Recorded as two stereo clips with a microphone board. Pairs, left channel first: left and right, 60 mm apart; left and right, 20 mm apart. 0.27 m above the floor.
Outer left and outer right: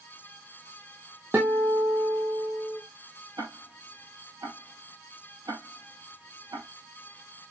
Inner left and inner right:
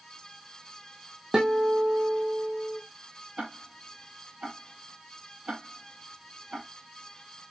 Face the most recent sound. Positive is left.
turn(degrees=-85)